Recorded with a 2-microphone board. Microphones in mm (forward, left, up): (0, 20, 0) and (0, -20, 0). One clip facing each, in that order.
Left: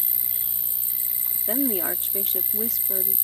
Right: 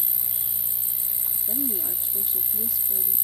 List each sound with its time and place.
0.0 s an insect: 35° left (ahead or behind)
1.5 s a woman speaking: 75° left (ahead or behind)